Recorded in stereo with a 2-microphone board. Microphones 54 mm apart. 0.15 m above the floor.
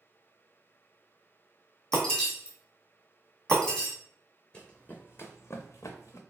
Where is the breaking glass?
10° left (ahead or behind), 1.7 m.